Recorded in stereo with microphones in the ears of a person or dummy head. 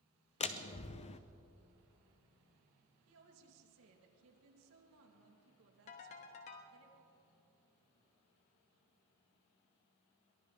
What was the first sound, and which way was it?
A door slam, 35° left (ahead or behind).